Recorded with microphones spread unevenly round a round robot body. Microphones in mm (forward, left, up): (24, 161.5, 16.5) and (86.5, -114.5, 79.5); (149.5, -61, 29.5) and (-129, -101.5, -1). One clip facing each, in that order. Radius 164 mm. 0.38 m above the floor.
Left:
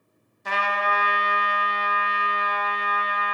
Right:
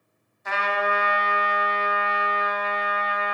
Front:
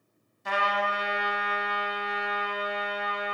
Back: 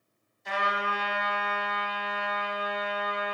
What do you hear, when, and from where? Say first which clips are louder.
0.5 s a trumpet: right 2 dB, front 3 dB; 55° left, 1.3 m